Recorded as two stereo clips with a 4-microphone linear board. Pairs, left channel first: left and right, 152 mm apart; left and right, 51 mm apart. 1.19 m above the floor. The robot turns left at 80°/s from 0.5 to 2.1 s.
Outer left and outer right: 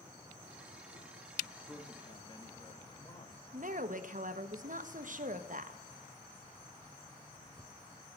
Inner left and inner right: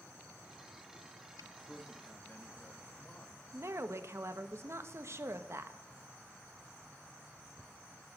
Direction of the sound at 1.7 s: Straight behind.